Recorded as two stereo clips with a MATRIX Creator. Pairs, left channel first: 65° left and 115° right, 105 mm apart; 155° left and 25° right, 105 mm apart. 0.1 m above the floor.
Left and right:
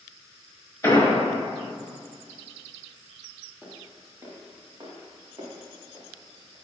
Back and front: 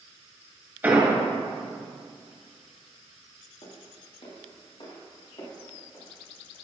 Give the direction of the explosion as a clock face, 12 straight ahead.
11 o'clock.